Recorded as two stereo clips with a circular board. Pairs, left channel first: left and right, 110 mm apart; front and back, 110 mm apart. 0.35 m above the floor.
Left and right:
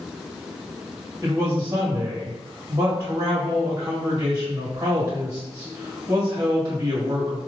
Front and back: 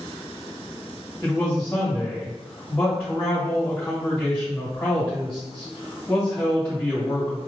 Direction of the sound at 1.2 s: 80° right.